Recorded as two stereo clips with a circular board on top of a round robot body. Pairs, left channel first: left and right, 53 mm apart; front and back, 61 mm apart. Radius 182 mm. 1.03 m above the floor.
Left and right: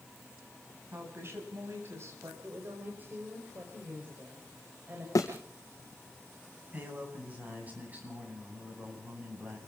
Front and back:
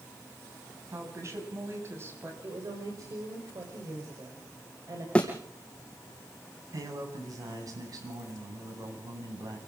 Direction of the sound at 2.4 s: 145° right.